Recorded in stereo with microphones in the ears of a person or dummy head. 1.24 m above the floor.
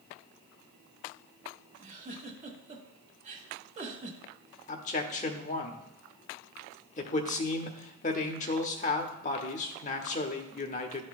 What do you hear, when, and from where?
1.8 s a giggle: 40° right (ahead or behind), 1.4 m
4.7 s a man speaking: 35° left (ahead or behind), 0.8 m